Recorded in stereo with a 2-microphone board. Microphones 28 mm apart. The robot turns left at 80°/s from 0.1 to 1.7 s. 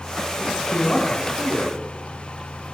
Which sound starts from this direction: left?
A man speaking, at 0.4 s.